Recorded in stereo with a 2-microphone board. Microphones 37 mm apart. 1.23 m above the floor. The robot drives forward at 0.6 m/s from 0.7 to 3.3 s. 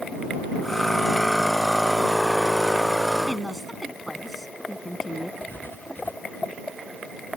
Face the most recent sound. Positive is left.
turn(degrees=65)  # may be behind; listen again after turning